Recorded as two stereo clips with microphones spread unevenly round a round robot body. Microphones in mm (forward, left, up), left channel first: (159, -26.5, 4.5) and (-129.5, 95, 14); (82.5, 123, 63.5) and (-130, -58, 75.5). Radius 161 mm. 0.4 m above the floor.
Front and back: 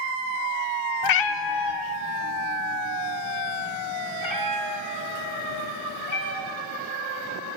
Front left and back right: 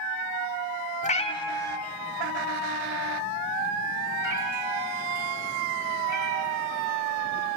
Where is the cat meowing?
20° right, 0.7 m; by 6.5 s 60° right, 4 m.